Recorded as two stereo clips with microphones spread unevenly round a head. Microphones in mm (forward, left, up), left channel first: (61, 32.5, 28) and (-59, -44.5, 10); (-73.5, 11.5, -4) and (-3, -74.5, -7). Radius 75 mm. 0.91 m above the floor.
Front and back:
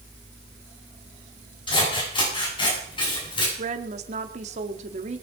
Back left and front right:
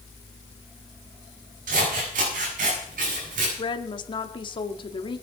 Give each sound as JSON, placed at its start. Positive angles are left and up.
{"t": 1.7, "sound": "scissors", "azimuth_deg": -25, "distance_m": 8.5}
{"t": 3.6, "sound": "a woman speaking", "azimuth_deg": 175, "distance_m": 1.8}